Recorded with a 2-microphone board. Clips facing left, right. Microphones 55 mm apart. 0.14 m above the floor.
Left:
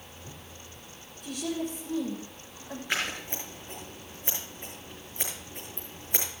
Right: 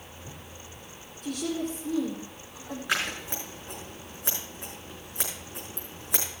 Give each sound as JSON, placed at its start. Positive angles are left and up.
{"t": 1.2, "sound": "a woman speaking", "side_deg": -50, "distance_m": 5.0}
{"t": 2.9, "sound": "scissors", "side_deg": -65, "distance_m": 4.5}